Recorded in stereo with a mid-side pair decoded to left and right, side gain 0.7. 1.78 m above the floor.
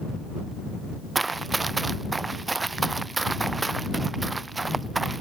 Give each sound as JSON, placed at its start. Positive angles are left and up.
{"t": 1.1, "sound": "running footsteps", "azimuth_deg": -15}